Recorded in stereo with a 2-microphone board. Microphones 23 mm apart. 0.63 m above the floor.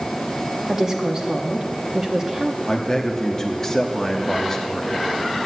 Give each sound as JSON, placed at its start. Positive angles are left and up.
{"t": 0.7, "sound": "a woman speaking", "side_deg": -20, "distance_m": 1.0}
{"t": 2.7, "sound": "a man speaking", "side_deg": 25, "distance_m": 1.2}